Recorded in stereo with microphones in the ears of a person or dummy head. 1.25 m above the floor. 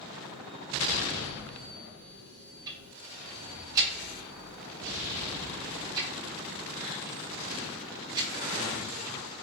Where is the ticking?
20° right (ahead or behind), 1.1 m.